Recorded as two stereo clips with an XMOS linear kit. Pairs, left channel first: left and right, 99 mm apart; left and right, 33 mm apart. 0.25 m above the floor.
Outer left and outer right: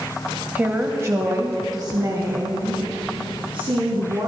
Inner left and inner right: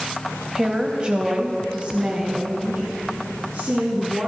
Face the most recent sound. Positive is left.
turn(degrees=-65)  # may be behind; listen again after turning